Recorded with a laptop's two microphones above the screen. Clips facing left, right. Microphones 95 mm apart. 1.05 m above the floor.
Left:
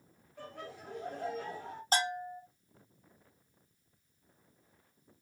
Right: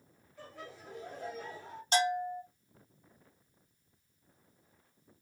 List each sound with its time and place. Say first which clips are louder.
0.4 s laughter: left 3 dB; 60° left (ahead or behind), 1.2 m
1.9 s a bell: right 3 dB; 40° left (ahead or behind), 0.9 m